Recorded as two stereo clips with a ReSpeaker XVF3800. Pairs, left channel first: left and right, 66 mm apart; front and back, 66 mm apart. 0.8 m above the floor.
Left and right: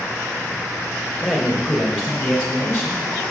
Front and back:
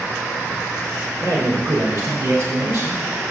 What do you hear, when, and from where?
1.2 s a man speaking: 175° left, 3 m; by 3.0 s 155° left, 2 m